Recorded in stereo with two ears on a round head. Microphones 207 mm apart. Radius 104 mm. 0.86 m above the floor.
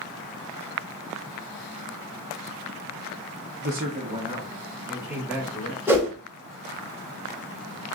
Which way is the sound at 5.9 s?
10° right (ahead or behind).